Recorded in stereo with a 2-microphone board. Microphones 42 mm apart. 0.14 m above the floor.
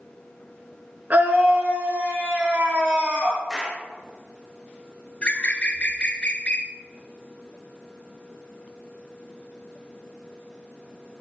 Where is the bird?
30° left (ahead or behind), 0.9 m.